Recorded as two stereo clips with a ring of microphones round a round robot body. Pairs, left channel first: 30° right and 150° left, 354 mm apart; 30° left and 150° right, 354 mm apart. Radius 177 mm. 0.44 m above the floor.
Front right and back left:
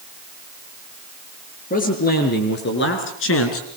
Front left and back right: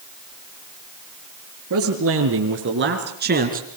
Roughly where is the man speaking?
Right.